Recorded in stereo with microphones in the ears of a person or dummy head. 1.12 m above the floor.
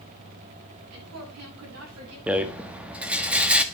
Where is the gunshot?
No gunshot in this recording.